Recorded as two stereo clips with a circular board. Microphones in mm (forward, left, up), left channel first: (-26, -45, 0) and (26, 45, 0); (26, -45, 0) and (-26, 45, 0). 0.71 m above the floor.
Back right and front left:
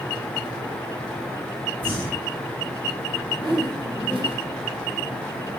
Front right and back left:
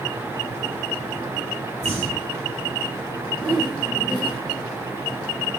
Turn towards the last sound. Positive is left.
turn(degrees=85)